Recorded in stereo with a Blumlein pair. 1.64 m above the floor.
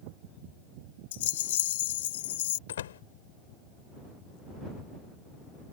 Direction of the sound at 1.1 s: 55° left.